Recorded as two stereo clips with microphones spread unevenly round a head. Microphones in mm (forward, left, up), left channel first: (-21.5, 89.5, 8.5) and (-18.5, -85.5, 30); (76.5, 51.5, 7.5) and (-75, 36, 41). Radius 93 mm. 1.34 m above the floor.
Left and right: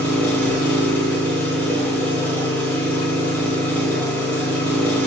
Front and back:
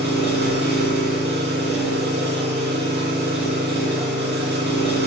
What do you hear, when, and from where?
0.0 s an engine running: 170° left, 0.9 m